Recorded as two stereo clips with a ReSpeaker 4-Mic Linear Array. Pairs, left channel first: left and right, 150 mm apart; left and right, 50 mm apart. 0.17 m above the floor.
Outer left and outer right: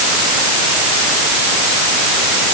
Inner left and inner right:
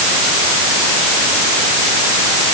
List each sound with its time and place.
Only background noise.